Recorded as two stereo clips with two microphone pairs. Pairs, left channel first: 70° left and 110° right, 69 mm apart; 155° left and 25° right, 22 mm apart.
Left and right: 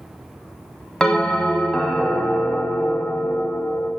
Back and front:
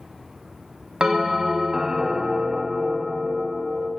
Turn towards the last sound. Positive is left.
turn(degrees=0)